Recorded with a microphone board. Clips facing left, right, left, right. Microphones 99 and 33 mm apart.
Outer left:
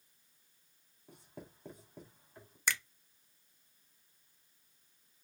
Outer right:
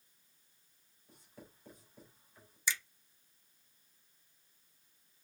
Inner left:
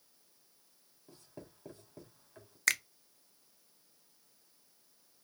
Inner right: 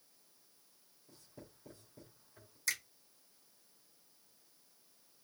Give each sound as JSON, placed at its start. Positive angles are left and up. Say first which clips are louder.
{"t": 1.1, "sound": "writing", "louder": "outer left 5 dB, inner left 4 dB", "side_deg": 60, "distance_m": 3.5}
{"t": 2.7, "sound": "a finger snap", "louder": "outer left 2 dB, inner left 8 dB", "side_deg": 60, "distance_m": 0.5}